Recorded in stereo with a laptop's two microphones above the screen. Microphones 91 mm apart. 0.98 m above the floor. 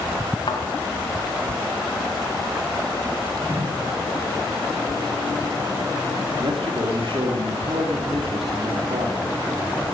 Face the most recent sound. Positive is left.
turn(degrees=-75)  # may be behind; listen again after turning